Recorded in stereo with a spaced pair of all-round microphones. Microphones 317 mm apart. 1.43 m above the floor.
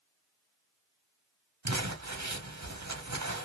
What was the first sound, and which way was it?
Crumpling, 55° right (ahead or behind).